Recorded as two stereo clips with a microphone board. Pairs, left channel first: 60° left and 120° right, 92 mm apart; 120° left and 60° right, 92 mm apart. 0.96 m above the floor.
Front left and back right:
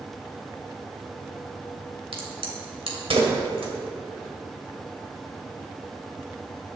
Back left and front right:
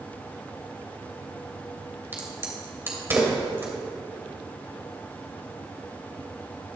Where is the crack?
125° right, 2.5 m.